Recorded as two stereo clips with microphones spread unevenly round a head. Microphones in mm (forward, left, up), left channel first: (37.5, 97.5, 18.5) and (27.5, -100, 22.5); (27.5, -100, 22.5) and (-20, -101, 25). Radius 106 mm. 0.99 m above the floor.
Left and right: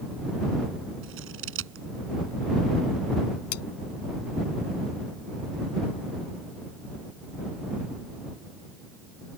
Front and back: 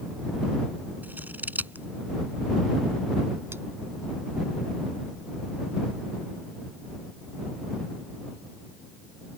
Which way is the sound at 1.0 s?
130° right.